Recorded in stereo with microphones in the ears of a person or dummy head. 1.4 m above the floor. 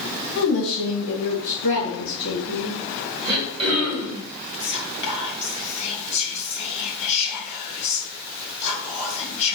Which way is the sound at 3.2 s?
30° right (ahead or behind).